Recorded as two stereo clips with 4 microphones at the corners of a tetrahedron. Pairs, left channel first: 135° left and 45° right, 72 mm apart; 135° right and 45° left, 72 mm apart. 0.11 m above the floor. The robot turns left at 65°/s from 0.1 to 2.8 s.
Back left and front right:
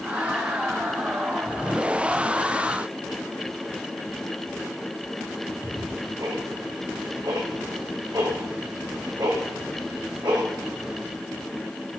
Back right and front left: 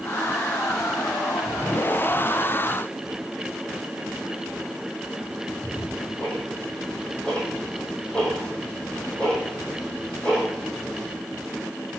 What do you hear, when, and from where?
5.3 s ticking: 60° right, 2.5 m